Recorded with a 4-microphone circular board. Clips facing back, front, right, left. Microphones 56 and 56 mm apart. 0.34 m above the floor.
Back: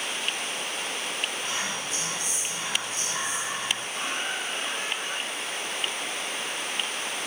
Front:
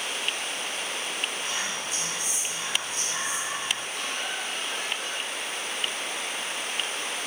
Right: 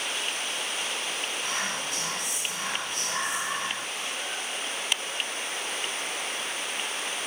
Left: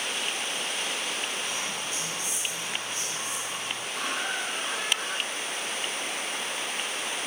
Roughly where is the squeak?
Behind left.